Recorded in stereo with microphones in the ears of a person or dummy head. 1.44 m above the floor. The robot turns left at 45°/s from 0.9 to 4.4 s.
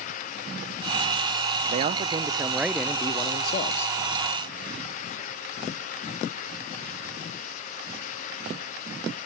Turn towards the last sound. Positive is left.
turn(degrees=110)